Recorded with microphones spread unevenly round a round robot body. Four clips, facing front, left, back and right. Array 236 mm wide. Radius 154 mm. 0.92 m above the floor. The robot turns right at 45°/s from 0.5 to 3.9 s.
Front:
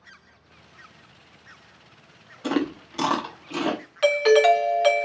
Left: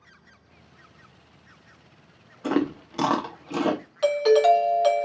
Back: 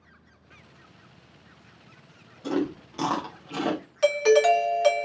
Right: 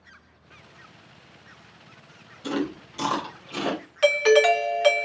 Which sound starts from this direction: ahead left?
Chewing, at 2.4 s.